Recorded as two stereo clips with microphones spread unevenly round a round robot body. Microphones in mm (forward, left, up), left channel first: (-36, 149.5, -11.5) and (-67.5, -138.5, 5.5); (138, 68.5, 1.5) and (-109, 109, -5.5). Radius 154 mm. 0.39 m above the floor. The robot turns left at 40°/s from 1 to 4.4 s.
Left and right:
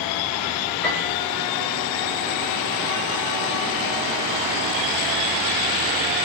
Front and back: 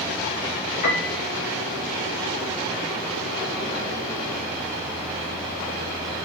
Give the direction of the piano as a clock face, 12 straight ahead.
12 o'clock.